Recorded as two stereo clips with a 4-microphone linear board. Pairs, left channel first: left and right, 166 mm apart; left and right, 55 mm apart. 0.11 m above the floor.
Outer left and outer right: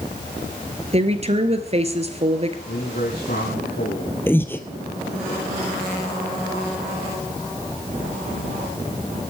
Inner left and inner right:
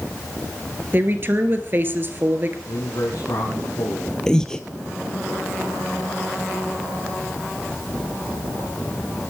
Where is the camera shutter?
I don't hear a camera shutter.